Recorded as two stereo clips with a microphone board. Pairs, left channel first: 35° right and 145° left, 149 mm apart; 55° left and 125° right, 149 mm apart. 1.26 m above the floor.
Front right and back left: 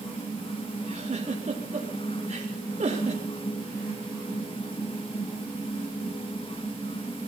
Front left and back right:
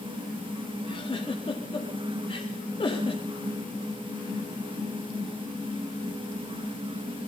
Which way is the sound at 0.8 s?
105° left.